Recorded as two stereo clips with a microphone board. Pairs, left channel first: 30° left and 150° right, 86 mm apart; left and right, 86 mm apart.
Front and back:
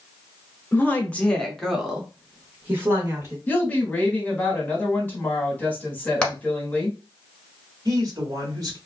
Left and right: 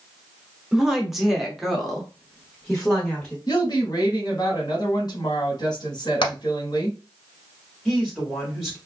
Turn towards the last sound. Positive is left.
turn(degrees=-175)